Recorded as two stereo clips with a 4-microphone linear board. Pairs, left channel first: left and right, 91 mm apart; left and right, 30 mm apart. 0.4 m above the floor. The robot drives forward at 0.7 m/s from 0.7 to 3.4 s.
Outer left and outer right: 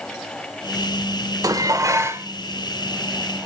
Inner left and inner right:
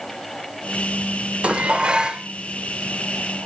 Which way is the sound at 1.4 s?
40° right (ahead or behind).